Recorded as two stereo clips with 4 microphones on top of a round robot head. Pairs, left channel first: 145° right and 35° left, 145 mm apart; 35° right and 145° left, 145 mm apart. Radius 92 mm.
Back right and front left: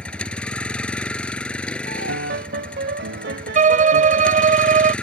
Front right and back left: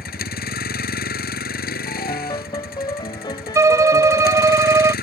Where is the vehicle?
60° right.